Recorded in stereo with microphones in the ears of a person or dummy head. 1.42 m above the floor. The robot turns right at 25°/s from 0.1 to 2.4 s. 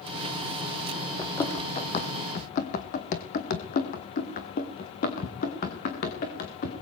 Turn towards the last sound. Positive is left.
turn(degrees=50)  # may be behind; listen again after turning